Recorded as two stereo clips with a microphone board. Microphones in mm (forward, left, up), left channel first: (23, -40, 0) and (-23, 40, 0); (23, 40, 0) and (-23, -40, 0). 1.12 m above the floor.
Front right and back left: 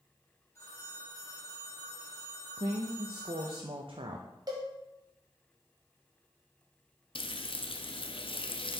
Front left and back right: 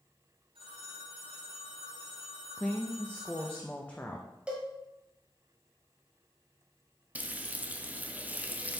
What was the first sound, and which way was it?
A phone ringing, 115° right.